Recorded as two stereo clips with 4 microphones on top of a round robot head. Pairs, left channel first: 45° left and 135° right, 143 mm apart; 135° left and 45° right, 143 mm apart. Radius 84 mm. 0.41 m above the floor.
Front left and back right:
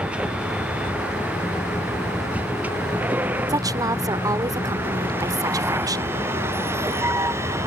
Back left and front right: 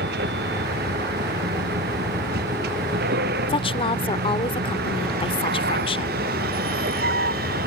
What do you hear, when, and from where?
0.0 s a vehicle: 55° right; by 7.7 s 65° right
3.5 s a woman speaking: 170° left